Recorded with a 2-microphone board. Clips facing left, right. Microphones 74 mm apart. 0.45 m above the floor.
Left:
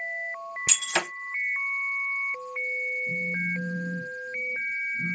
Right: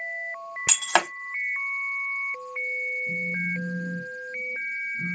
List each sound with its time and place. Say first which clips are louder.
0.7 s breaking glass: right 7 dB; 90° right, 1.0 m
3.1 s a phone buzzing: even; 20° right (ahead or behind), 1.8 m